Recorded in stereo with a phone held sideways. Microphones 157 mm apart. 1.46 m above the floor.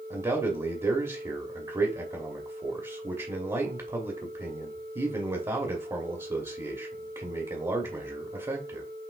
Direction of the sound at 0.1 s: 25° right (ahead or behind).